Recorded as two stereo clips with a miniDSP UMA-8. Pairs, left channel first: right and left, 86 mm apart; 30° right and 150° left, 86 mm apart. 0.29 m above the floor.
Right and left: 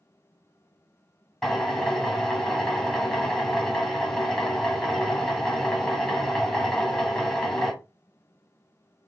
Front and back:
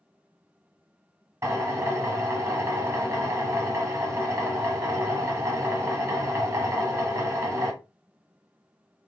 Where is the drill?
170° right, 1.1 m.